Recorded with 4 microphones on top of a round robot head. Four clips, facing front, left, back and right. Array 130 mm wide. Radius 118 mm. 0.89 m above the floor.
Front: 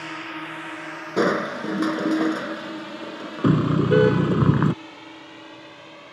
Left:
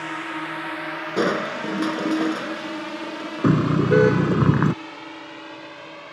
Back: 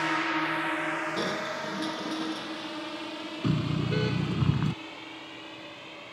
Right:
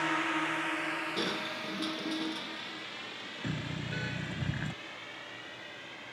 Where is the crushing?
35° left.